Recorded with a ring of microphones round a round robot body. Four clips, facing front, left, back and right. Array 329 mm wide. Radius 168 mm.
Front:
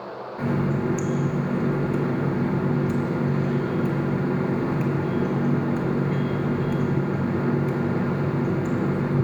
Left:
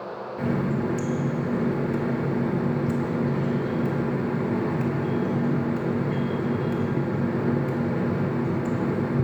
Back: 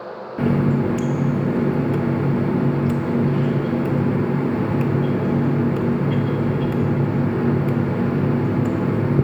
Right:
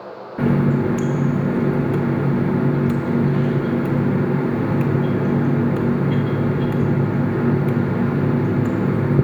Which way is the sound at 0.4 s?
130° right.